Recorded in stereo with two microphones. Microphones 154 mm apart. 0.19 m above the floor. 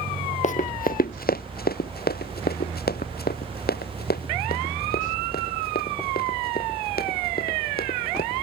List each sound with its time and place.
0.4 s running footsteps: 55° left (ahead or behind); by 8.3 s 80° left